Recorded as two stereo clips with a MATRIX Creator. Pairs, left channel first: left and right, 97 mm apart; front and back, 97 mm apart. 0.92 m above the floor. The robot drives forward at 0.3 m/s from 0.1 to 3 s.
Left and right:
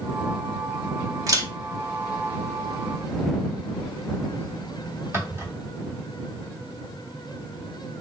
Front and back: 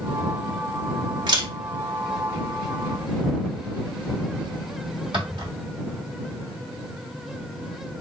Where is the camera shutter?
140° right, 1.3 m; by 5.5 s 150° right, 1.7 m.